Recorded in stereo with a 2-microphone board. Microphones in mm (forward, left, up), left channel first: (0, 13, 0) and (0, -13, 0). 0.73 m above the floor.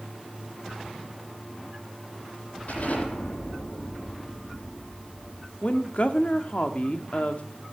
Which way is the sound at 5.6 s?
55° left (ahead or behind).